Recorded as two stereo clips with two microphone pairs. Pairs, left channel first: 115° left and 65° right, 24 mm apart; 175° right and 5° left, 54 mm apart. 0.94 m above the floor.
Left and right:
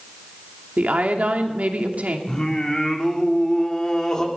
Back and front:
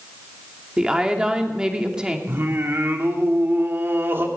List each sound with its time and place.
0.8 s a woman speaking: 70° right, 2.5 m
2.3 s singing: 50° left, 2.5 m